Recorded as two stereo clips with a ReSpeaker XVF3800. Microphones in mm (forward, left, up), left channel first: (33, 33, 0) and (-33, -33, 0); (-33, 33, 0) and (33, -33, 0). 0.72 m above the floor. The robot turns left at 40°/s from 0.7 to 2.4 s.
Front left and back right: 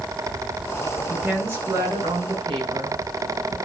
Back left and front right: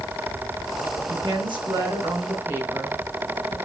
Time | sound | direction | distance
1.1 | a woman speaking | 60° right | 6.5 m